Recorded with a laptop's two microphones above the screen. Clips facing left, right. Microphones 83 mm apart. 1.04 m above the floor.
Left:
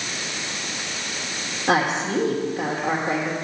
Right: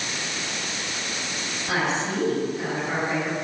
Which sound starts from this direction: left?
A woman speaking, at 1.7 s.